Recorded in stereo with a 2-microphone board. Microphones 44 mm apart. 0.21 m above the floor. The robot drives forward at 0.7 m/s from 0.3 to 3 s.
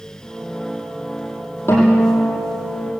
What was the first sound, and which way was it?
A guitar, 70° left (ahead or behind).